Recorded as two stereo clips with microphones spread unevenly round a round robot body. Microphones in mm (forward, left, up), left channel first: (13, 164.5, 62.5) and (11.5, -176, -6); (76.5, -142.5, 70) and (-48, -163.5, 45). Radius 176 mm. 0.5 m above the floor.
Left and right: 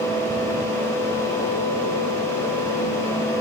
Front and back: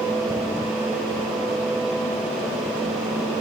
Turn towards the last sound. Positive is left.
No sound to turn to.